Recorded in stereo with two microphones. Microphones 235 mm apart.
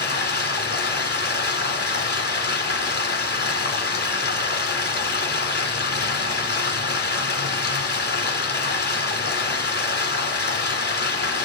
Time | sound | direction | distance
0.0 | running water | 45° left (ahead or behind) | 2.0 m